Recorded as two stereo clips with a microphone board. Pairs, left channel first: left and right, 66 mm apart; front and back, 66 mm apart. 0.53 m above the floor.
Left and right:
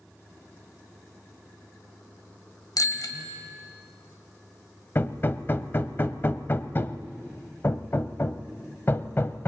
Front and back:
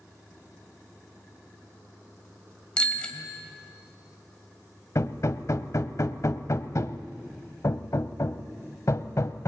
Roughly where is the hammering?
Ahead left.